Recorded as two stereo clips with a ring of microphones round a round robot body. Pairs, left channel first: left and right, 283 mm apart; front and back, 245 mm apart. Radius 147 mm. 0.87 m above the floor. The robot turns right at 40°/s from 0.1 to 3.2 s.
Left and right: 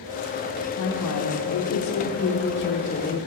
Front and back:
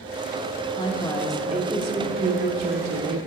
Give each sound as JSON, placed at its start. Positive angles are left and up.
{"t": 0.8, "sound": "a woman speaking", "azimuth_deg": 60, "distance_m": 1.0}